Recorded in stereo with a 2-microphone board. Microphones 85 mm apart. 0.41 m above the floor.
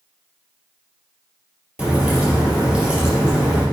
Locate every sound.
1.8 s a crack: 15° right (ahead or behind), 3.5 m